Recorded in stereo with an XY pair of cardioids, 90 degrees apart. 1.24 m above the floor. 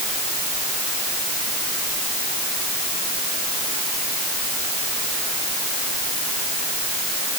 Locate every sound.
Only background noise.